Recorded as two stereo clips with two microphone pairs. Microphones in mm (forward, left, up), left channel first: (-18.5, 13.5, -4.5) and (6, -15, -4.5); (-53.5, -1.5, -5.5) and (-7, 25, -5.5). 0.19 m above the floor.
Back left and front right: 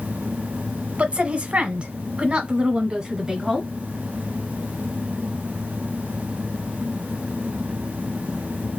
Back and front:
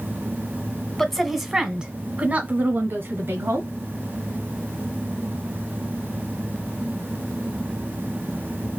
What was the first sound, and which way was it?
A woman speaking, 70° right.